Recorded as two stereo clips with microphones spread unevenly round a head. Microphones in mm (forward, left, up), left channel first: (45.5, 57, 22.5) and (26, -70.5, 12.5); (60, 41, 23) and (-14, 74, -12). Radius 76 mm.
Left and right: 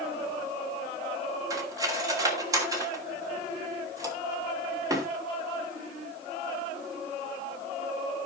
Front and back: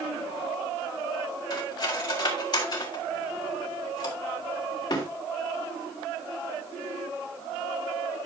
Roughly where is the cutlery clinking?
Ahead right.